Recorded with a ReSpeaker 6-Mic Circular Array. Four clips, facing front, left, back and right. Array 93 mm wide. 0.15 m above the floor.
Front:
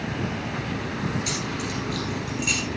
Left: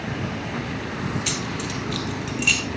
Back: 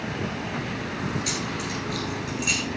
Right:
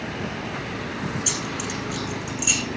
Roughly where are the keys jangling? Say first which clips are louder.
Left 1 dB, front 1 dB; left.